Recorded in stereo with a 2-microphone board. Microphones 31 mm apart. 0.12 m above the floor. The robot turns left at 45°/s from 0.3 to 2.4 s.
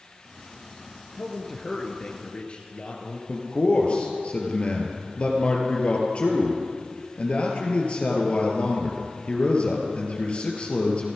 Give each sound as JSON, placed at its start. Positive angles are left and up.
{"t": 1.1, "sound": "a man speaking", "azimuth_deg": -175, "distance_m": 2.0}
{"t": 3.3, "sound": "a man speaking", "side_deg": 35, "distance_m": 3.0}